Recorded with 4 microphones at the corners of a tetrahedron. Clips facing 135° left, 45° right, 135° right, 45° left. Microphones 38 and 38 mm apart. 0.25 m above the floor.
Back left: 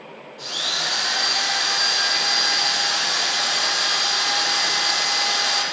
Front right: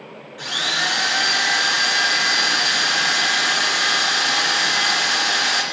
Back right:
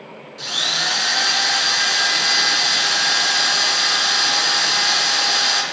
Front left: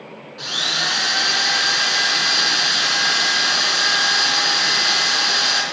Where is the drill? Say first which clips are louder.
Front right 4 dB, even; 30° right, 3 m.